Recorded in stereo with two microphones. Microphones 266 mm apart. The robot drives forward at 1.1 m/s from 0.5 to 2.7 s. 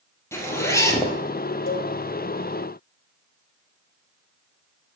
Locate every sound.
0.3 s a zipper: 10° left (ahead or behind), 2.5 m; by 1.2 s 15° left (ahead or behind), 1.6 m
1.7 s a cowbell: 55° left (ahead or behind), 2.0 m; by 1.9 s 50° left (ahead or behind), 2 m